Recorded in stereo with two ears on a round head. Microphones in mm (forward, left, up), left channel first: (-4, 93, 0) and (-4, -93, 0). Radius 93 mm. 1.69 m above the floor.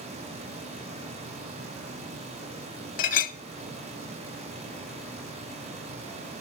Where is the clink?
40° left (ahead or behind), 0.7 m.